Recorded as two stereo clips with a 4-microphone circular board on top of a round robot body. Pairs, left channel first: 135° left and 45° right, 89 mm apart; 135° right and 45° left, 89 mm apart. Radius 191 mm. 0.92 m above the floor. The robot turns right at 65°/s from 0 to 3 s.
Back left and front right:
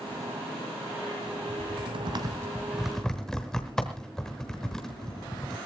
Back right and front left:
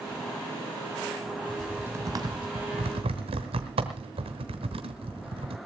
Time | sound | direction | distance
1.5 | typing on a keyboard | 45° right | 1.0 m